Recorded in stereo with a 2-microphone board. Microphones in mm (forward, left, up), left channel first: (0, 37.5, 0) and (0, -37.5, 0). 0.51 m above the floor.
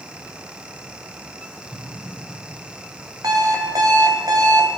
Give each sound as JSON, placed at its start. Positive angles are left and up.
{"t": 1.7, "sound": "an explosion", "side_deg": -10, "distance_m": 3.0}
{"t": 3.2, "sound": "an alarm clock", "side_deg": -60, "distance_m": 1.9}